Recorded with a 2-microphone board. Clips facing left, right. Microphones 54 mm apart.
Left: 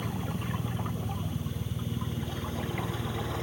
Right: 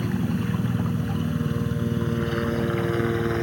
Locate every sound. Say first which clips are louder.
0.0 s a helicopter: right 9 dB; 70° right (ahead or behind); by 3.5 s 60° right (ahead or behind)